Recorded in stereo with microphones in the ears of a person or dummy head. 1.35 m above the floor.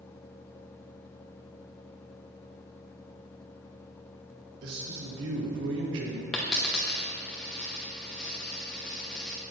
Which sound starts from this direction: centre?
A dropped coin, at 6.3 s.